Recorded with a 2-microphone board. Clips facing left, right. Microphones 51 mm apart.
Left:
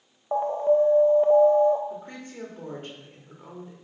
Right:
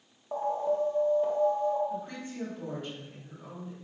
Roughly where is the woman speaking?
Left.